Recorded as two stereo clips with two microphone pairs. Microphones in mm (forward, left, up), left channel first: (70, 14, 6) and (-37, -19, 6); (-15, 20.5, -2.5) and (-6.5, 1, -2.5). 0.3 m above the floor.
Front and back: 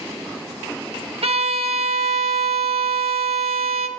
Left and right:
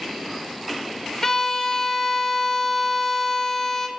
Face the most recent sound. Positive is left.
turn(degrees=-175)